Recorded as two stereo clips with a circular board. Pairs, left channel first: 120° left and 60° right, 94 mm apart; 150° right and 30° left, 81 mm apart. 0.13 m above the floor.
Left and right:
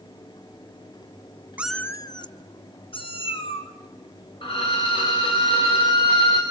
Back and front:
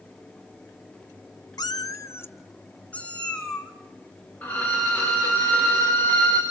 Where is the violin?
140° left, 6.5 m.